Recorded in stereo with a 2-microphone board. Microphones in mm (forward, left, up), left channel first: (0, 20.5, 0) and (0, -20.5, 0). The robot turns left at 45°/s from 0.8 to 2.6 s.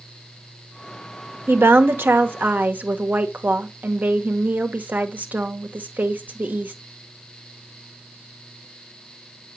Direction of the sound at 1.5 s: 75° right.